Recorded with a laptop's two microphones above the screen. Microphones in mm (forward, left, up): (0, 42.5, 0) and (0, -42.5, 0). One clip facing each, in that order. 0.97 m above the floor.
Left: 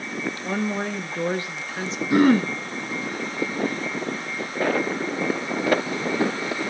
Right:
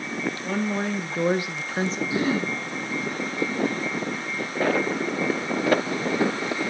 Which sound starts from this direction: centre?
A woman speaking, at 0.4 s.